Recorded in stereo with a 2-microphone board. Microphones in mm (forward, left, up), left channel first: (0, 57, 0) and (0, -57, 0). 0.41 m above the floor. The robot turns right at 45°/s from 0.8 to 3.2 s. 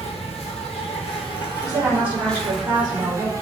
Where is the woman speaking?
Straight behind, 1.3 m; by 3.3 s 110° right, 1.3 m.